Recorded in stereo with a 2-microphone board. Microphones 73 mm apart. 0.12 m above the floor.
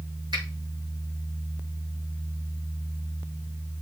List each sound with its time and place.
0.3 s a finger snap: 75° right (ahead or behind), 5.5 m